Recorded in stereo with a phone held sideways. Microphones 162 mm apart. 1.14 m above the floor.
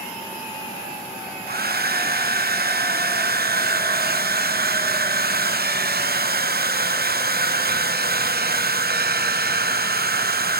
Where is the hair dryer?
65° right (ahead or behind), 0.7 m.